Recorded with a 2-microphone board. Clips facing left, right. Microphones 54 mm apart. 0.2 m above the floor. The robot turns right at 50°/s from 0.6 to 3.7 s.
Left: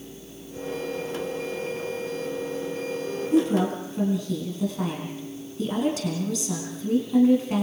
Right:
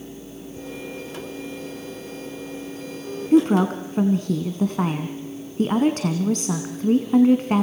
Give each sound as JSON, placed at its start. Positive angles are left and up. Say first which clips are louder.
{"t": 3.3, "sound": "a woman speaking", "louder": "right 5 dB", "side_deg": -50, "distance_m": 1.6}